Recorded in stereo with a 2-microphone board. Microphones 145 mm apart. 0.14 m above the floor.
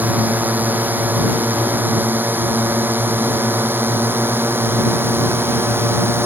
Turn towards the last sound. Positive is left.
turn(degrees=-15)  # may be behind; listen again after turning